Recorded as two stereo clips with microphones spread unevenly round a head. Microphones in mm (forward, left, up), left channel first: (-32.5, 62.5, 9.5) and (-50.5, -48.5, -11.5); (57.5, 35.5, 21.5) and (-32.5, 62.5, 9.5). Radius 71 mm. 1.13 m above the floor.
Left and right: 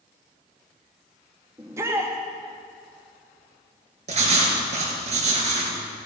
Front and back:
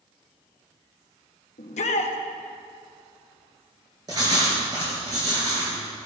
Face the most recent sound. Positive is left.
turn(degrees=-125)